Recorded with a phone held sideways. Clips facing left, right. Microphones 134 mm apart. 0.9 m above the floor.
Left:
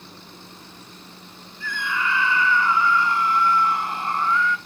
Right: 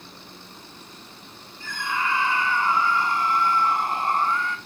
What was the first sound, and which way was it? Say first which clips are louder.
A scream: left 1 dB; 45° right (ahead or behind).